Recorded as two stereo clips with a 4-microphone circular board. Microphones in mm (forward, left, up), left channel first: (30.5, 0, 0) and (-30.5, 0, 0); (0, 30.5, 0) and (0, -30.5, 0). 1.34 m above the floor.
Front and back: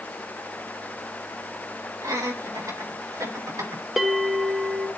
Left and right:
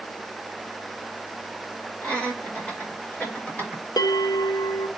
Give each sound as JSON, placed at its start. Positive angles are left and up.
{"t": 2.0, "sound": "laughter", "azimuth_deg": 165, "distance_m": 6.5}
{"t": 4.0, "sound": "a bell", "azimuth_deg": 95, "distance_m": 0.8}